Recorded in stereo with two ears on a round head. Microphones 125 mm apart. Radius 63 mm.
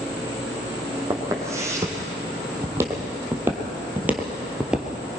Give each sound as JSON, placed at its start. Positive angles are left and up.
{"t": 1.1, "sound": "footsteps", "side_deg": -20, "distance_m": 4.0}